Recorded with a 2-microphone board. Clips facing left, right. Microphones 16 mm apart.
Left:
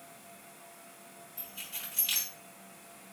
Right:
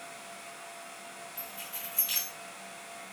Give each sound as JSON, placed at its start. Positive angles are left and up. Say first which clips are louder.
{"t": 1.4, "sound": "keys jangling", "louder": "left 1 dB", "side_deg": 35, "distance_m": 1.4}